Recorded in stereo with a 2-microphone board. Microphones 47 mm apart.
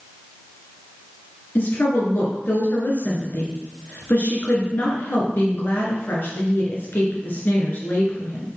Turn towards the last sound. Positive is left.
turn(degrees=45)  # may be behind; listen again after turning